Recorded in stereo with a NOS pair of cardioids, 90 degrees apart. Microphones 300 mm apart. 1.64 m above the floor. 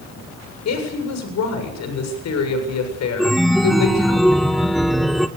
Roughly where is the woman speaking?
Ahead left.